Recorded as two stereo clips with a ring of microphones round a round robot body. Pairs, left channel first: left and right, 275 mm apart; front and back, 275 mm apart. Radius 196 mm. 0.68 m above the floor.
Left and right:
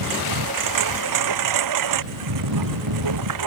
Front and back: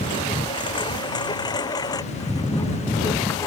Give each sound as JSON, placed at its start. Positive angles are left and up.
{"t": 0.0, "sound": "a lawn mower", "azimuth_deg": -80}